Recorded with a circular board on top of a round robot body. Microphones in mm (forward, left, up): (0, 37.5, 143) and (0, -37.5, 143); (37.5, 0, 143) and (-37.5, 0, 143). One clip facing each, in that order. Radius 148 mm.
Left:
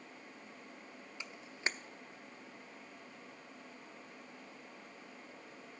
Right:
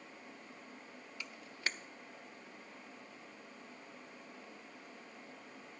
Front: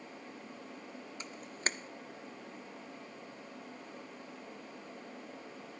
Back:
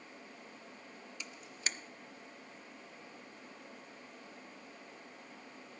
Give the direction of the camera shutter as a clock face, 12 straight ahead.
11 o'clock.